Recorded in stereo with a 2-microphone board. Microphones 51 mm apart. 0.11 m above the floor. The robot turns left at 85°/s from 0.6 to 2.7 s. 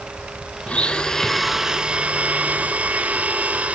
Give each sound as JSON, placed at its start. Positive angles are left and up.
{"t": 0.7, "sound": "a blender", "side_deg": 25, "distance_m": 0.7}